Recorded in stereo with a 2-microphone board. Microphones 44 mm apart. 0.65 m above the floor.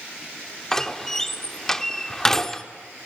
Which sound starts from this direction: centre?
A door slam, at 0.7 s.